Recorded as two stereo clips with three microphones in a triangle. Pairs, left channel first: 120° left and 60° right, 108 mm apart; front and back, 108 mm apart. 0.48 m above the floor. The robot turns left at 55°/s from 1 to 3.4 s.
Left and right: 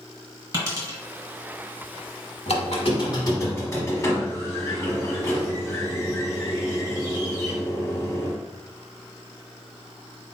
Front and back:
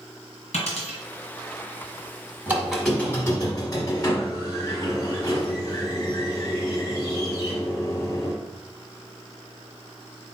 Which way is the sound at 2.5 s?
110° left.